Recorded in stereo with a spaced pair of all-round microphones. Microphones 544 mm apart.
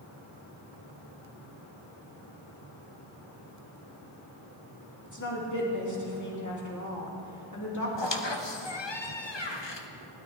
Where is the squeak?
55° left (ahead or behind), 1.0 m.